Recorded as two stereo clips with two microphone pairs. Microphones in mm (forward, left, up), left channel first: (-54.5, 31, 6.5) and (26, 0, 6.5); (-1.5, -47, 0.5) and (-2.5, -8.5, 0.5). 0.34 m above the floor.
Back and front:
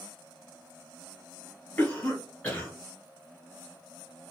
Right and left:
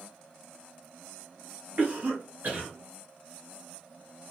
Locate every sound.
1.8 s a cough: 90° left, 2.0 m